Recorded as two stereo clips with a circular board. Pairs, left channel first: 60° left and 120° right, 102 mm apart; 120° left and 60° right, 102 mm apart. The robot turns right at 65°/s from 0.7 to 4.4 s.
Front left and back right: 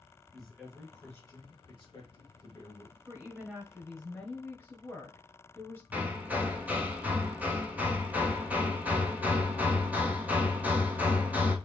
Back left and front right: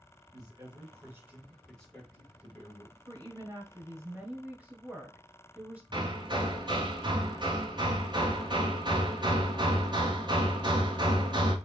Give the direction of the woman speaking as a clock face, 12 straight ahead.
3 o'clock.